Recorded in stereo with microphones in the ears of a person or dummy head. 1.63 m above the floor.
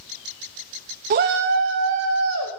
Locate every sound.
1.1 s a shout: 35° right (ahead or behind), 0.5 m; by 2.5 s 75° right (ahead or behind), 1.5 m